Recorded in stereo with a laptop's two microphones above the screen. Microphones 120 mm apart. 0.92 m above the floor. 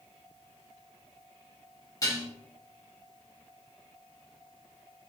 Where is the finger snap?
No finger snap in this recording.